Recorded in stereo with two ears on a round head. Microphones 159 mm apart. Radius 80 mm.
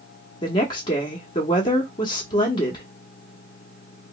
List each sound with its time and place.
0.4 s a woman speaking: 25° left (ahead or behind), 0.8 m